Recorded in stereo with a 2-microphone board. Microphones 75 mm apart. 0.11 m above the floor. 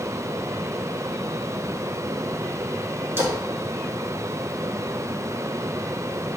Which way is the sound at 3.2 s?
40° right (ahead or behind).